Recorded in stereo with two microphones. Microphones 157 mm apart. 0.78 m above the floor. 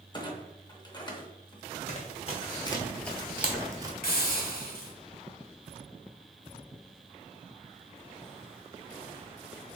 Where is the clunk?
30° left (ahead or behind), 0.5 m.